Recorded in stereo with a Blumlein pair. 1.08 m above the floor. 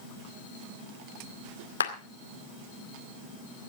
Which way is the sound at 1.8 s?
70° left.